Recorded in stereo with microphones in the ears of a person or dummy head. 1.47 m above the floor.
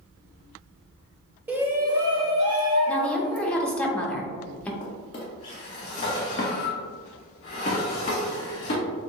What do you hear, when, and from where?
1.5 s a shout: 10° right (ahead or behind), 1.0 m; by 3.5 s 40° right (ahead or behind), 1.9 m
2.9 s a woman speaking: 10° left (ahead or behind), 0.9 m
4.8 s a drawer: 35° left (ahead or behind), 1.6 m